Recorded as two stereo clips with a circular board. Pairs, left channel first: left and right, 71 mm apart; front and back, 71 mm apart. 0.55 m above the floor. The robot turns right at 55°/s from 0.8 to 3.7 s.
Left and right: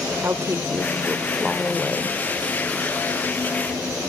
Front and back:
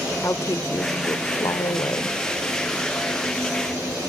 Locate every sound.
0.2 s a woman speaking: 40° right, 1.5 m; by 2.2 s 35° left, 1.5 m